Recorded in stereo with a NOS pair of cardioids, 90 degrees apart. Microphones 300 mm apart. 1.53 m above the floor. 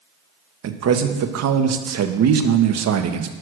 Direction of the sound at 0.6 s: 60° right.